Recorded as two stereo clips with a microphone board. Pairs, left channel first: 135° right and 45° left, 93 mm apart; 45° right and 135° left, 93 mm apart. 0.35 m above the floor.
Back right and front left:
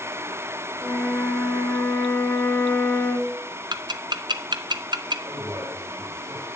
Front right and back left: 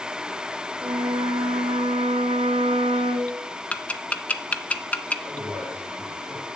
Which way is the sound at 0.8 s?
155° left.